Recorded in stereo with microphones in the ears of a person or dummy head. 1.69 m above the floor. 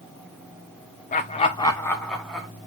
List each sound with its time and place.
1.1 s laughter: 35° left (ahead or behind), 0.6 m; by 2.5 s centre (ahead or behind), 1.1 m